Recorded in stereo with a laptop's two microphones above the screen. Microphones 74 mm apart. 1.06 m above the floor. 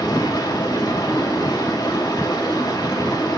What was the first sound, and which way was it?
Running water, 65° left (ahead or behind).